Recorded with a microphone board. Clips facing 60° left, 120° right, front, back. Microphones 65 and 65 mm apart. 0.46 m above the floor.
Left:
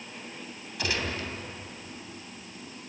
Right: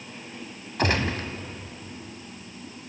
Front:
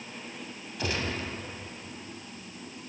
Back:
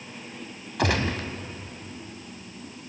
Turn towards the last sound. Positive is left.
turn(degrees=-165)